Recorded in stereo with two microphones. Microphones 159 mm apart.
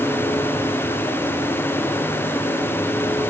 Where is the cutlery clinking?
I don't hear cutlery clinking.